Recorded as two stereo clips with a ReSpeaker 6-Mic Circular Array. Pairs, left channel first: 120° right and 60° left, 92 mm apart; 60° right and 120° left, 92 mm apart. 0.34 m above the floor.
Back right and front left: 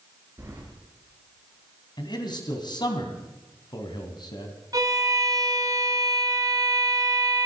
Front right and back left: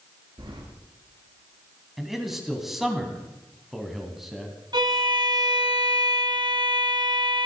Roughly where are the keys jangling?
Behind left.